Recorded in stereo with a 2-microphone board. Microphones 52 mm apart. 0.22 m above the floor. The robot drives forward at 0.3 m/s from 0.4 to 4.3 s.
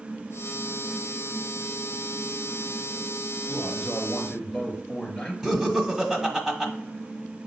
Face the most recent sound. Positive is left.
turn(degrees=0)  # may be behind; listen again after turning